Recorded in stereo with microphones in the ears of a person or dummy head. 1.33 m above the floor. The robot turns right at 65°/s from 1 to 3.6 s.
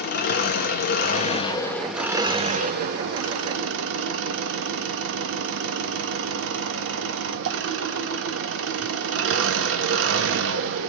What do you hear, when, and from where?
0.0 s an engine running: 115° left, 1.2 m; by 10.9 s 75° right, 1.2 m